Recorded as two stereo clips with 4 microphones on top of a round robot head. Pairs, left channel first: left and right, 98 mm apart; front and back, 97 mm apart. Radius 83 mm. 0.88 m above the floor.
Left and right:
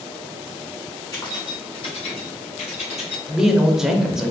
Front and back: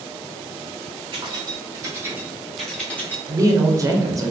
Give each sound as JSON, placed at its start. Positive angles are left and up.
{"t": 1.1, "sound": "keys jangling", "azimuth_deg": 140, "distance_m": 1.2}
{"t": 3.3, "sound": "a woman speaking", "azimuth_deg": -170, "distance_m": 0.6}